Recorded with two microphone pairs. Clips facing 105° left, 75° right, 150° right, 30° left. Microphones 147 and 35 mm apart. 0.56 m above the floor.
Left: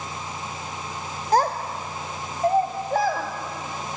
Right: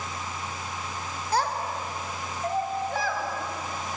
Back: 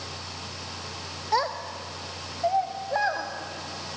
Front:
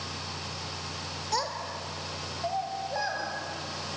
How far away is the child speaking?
About 1.1 m.